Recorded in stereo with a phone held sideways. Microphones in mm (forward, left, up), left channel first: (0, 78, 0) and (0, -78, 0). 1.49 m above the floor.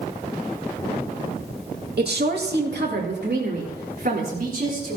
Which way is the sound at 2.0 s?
75° right (ahead or behind).